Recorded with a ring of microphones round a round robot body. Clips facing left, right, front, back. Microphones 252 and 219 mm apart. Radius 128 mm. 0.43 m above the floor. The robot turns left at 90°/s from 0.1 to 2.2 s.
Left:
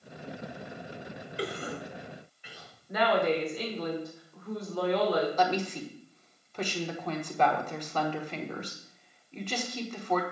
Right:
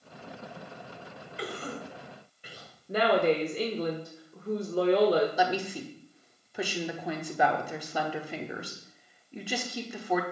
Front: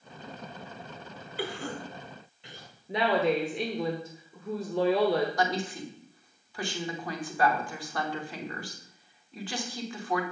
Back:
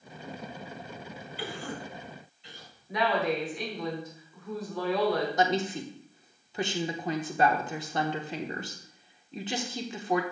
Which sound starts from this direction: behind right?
A woman speaking, at 5.4 s.